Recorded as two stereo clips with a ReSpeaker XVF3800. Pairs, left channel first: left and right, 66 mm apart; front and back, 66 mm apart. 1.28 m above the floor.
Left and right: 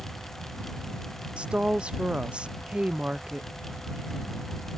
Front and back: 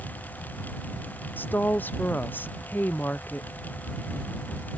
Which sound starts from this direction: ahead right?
A woman speaking, at 1.4 s.